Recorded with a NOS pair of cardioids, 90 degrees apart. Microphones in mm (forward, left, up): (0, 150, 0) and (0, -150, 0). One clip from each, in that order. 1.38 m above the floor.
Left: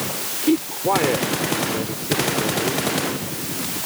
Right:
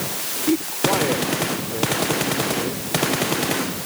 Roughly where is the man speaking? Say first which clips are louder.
Left 1 dB; ahead left.